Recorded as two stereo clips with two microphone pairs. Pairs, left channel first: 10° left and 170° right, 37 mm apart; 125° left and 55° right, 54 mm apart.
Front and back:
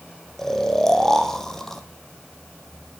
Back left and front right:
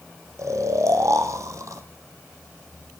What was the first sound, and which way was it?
Snoring, 65° right.